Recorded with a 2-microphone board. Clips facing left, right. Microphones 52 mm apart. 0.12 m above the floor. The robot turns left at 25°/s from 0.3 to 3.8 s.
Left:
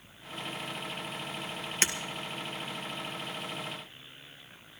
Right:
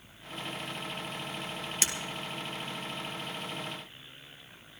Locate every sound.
1.8 s breaking glass: 40° left (ahead or behind), 1.6 m